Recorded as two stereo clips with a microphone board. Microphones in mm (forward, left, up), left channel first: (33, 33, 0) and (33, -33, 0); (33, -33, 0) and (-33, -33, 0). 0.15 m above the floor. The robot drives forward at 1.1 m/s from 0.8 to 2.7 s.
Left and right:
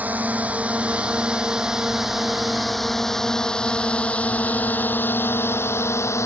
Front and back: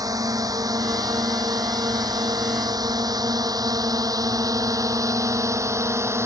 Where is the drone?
155° right; by 6.3 s 135° left.